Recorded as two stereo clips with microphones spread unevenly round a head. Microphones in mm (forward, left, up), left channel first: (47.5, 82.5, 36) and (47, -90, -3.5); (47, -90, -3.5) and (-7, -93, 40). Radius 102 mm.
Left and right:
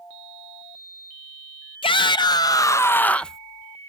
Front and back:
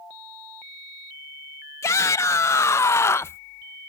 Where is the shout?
25° left; by 3.4 s 5° right.